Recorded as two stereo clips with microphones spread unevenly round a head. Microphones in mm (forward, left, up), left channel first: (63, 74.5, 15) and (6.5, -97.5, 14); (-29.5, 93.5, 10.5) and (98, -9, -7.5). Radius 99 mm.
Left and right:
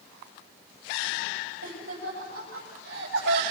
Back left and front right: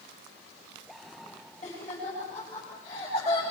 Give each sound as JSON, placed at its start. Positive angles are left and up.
{"t": 1.6, "sound": "laughter", "azimuth_deg": -160, "distance_m": 8.0}